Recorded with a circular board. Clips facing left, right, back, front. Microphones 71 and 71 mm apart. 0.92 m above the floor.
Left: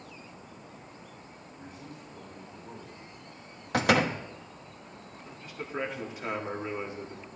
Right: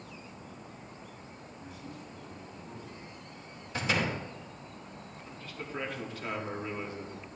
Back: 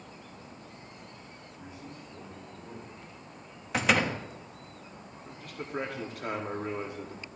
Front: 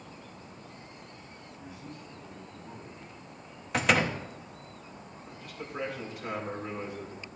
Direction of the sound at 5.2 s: 160° left.